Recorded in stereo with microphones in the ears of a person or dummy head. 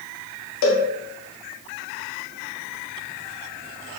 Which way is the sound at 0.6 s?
65° left (ahead or behind).